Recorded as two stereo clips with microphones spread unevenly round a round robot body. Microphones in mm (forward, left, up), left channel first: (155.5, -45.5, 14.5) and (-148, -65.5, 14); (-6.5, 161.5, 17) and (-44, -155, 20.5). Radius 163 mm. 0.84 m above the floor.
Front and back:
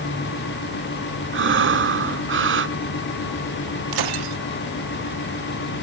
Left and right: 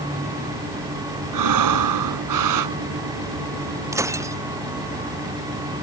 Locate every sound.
1.3 s breathing: 125° right
3.9 s breaking glass: straight behind